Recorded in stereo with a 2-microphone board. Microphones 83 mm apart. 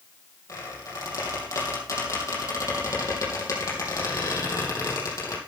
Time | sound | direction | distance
0.5 | a squeak | 40° left (ahead or behind) | 4 m